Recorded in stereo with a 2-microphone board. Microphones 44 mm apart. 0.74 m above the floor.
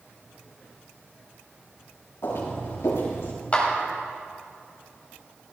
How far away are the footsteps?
About 4.5 m.